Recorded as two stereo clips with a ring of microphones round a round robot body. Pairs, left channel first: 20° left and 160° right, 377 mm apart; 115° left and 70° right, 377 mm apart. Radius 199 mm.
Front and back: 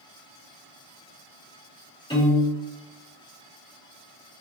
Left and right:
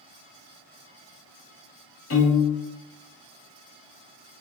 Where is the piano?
95° left, 1.5 m.